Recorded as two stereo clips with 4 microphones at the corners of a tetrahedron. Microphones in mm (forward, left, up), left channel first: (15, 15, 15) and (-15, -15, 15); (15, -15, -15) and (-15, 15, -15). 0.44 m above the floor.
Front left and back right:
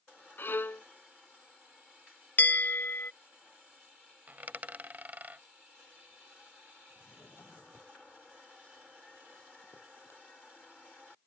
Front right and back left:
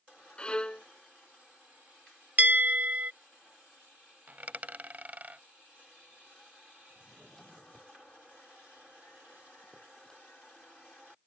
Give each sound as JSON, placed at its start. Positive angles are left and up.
{"t": 0.4, "sound": "a violin", "azimuth_deg": 20}
{"t": 2.4, "sound": "a bell", "azimuth_deg": 85}
{"t": 4.3, "sound": "a dropped coin", "azimuth_deg": 180}
{"t": 6.9, "sound": "a drawer", "azimuth_deg": 30}